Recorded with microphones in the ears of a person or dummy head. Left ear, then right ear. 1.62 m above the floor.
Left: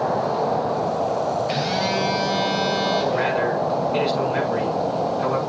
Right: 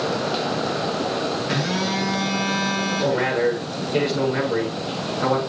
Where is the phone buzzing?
25° left (ahead or behind), 5.5 m.